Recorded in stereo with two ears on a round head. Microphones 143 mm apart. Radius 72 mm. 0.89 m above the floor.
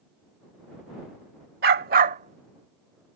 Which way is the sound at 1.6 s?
65° right (ahead or behind).